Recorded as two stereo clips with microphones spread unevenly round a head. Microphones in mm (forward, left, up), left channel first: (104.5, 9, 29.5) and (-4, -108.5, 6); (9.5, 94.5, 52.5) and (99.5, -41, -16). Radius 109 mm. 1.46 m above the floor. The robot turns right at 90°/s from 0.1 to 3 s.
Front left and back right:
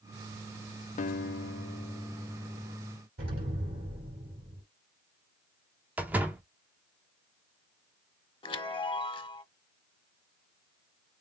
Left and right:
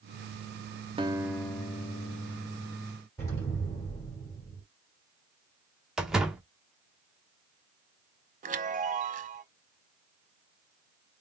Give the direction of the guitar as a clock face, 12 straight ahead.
12 o'clock.